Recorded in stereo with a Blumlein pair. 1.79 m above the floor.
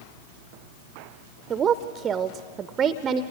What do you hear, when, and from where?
1.5 s a woman speaking: 25° right, 0.6 m